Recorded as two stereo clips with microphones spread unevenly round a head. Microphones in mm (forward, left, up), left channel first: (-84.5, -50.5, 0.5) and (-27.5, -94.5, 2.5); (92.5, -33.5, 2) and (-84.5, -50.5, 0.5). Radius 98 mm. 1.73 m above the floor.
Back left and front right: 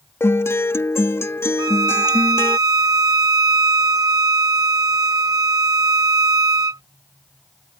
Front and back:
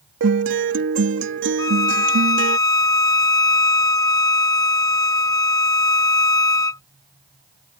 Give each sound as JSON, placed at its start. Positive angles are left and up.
{"t": 0.2, "sound": "a guitar", "azimuth_deg": -165}
{"t": 1.6, "sound": "a violin", "azimuth_deg": -65}